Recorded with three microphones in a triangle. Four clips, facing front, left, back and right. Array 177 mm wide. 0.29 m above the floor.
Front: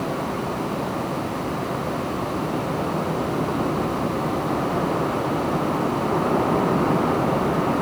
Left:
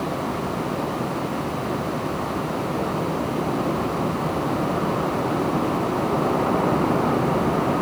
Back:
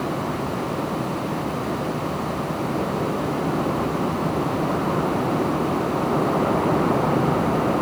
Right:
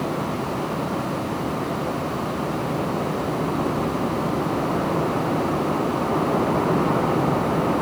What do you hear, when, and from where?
Only background noise.